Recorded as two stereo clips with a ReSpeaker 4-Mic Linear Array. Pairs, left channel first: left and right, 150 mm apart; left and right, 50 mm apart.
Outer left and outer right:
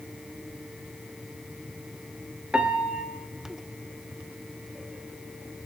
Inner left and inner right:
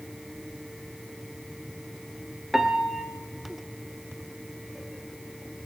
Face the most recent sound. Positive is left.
turn(degrees=-10)  # may be behind; listen again after turning